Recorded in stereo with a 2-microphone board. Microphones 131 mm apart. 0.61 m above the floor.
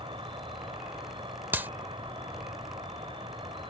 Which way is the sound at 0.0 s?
45° right (ahead or behind).